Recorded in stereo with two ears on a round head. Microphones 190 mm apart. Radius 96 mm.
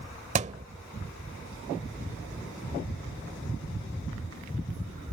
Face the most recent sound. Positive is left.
turn(degrees=-35)  # may be behind; listen again after turning